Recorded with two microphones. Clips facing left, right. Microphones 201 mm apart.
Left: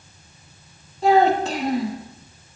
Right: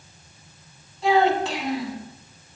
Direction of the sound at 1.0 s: 45° left (ahead or behind).